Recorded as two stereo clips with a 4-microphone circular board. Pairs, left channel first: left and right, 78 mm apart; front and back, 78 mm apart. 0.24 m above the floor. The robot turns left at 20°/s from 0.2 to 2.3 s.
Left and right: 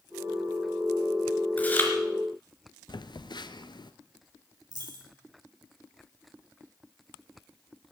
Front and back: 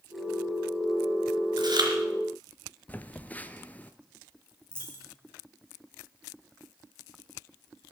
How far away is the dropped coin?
About 3.5 m.